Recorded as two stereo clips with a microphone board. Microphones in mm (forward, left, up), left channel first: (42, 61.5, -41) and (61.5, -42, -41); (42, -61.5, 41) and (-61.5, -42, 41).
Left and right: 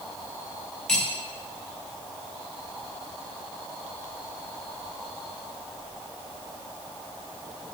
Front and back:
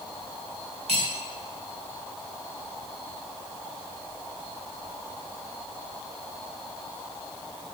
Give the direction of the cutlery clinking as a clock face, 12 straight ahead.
6 o'clock.